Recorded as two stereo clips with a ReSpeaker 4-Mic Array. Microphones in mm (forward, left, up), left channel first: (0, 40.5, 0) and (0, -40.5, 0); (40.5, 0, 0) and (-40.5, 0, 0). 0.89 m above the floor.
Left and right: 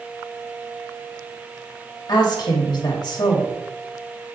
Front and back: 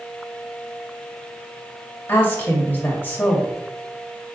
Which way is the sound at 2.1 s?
65° left.